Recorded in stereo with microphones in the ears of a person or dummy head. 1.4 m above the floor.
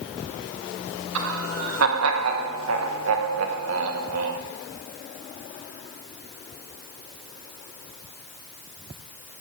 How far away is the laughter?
About 1.4 m.